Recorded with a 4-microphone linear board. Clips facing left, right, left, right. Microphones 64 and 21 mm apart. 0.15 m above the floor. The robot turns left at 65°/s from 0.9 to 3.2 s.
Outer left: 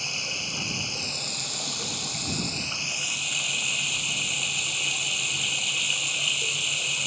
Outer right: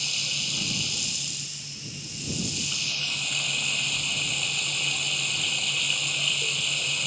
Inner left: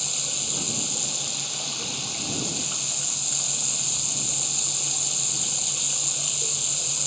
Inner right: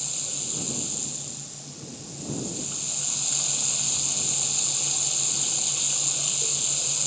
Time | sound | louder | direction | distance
0.0 | running water | outer left 1 dB, inner left 5 dB | 150° left | ?